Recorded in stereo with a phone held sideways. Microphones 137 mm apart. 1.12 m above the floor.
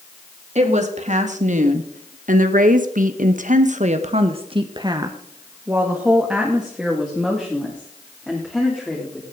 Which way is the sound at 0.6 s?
55° right (ahead or behind).